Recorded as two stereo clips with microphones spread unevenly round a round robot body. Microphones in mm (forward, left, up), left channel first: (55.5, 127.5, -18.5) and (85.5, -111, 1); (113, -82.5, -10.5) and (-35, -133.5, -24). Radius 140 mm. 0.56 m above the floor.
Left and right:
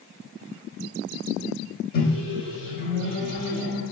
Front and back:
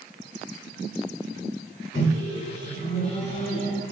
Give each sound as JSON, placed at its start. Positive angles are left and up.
{"t": 1.9, "sound": "a microwave", "azimuth_deg": 80, "distance_m": 0.6}